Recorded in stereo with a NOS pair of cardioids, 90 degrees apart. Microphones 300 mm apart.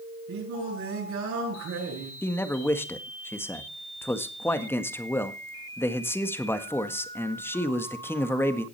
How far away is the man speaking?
About 1.6 m.